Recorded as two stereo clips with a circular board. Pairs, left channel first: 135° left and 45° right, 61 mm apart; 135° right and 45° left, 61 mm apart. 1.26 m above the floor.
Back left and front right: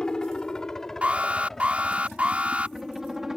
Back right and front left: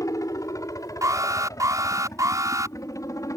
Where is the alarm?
20° left.